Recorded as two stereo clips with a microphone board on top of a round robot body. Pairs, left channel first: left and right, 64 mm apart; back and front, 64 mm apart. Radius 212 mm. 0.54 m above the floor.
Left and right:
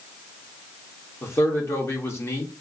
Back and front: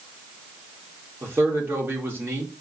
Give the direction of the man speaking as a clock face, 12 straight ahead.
10 o'clock.